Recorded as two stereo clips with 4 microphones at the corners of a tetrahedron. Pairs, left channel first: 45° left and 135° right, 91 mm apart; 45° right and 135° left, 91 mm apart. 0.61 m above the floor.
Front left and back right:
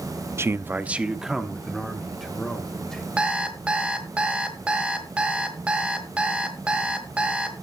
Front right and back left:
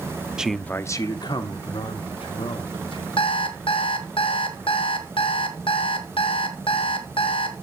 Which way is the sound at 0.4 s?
155° right.